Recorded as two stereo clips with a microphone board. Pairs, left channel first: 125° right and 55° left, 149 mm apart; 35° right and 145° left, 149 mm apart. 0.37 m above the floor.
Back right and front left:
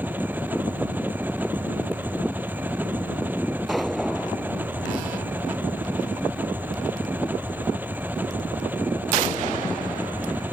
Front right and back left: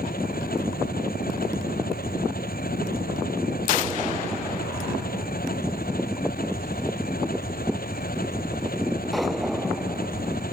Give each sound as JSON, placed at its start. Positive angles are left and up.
{"t": 0.0, "sound": "an engine running", "azimuth_deg": -20}